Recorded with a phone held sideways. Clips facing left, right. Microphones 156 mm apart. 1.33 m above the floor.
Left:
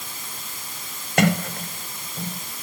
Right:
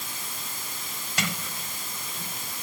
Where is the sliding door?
65° left (ahead or behind).